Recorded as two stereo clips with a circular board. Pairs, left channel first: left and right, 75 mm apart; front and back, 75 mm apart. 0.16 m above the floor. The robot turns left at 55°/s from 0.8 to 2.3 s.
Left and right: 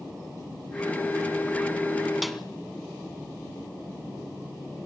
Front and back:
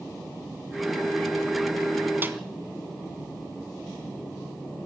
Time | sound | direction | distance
2.2 | a snare drum | 175° right | 1.8 m